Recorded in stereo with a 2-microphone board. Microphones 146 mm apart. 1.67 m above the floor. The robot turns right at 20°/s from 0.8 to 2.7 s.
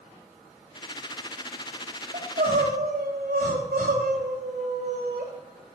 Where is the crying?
70° right (ahead or behind), 2.5 m; by 5.3 s 75° right (ahead or behind), 2.5 m.